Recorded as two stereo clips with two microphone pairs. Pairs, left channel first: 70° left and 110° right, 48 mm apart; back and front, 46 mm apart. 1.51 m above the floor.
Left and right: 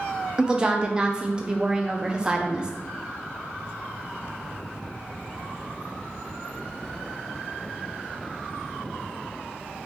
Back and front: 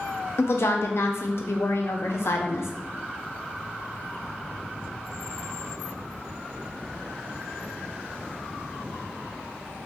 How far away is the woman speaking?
About 0.5 m.